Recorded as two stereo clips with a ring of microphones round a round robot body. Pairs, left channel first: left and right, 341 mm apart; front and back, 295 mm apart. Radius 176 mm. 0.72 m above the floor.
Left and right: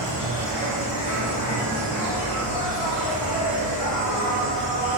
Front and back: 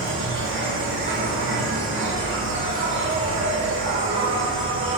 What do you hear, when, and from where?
0.0 s an insect: 130° left, 1.3 m